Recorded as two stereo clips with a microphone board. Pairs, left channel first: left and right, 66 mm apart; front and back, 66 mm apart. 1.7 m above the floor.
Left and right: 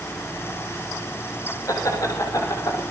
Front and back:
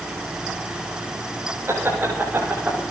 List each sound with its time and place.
1.7 s laughter: 125° left, 5.5 m; by 2.8 s 115° left, 4 m